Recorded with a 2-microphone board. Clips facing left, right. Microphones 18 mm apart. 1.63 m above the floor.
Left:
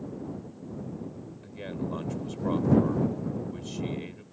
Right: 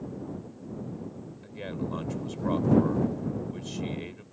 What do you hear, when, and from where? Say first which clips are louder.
1.4 s a man speaking: even; 5° right (ahead or behind)